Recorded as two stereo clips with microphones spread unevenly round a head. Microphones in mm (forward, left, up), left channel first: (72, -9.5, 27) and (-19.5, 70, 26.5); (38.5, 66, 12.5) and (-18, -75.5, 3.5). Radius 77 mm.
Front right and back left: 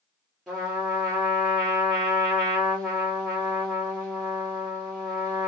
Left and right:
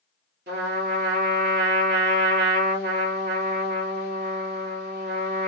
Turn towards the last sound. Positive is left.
turn(degrees=-130)